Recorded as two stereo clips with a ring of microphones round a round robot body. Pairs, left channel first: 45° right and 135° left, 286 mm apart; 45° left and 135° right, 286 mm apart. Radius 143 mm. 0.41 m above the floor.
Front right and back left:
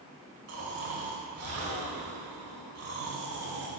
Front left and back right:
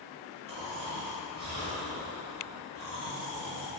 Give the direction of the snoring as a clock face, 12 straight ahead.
7 o'clock.